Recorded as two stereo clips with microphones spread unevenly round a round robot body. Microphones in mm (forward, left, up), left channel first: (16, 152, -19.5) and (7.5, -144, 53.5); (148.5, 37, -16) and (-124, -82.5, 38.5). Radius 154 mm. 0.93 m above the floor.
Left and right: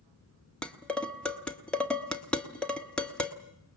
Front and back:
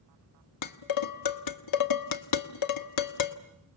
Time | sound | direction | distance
0.6 | dishes clattering | straight ahead | 1.0 m